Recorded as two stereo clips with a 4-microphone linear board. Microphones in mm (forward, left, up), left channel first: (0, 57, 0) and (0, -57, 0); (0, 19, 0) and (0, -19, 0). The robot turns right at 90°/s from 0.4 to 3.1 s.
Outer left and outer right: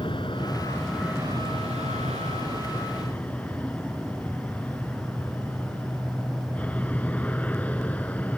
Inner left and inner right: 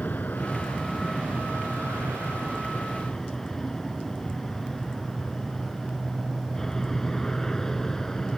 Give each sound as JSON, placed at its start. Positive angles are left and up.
{"t": 0.0, "sound": "an aircraft", "azimuth_deg": 130}